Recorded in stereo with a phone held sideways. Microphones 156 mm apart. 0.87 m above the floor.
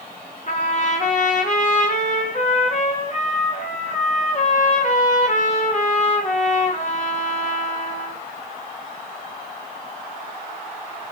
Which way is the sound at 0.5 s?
50° left (ahead or behind).